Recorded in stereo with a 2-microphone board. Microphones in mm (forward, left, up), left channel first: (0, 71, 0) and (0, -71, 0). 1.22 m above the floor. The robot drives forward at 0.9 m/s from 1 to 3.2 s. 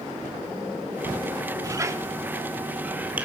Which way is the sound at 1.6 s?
25° right (ahead or behind).